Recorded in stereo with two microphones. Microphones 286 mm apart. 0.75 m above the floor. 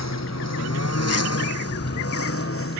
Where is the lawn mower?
65° left (ahead or behind); by 2.8 s 50° left (ahead or behind).